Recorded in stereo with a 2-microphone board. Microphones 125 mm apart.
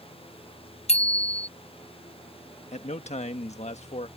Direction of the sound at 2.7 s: 65° left (ahead or behind).